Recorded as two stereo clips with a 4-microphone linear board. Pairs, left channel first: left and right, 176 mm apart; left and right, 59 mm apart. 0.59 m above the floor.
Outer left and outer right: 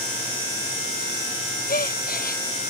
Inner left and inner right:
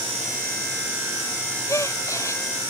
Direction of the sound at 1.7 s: 55° left (ahead or behind).